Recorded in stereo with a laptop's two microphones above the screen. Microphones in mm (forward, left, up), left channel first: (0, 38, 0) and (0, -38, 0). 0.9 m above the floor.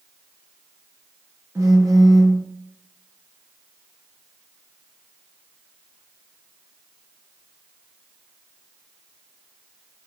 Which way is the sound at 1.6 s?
45° right (ahead or behind).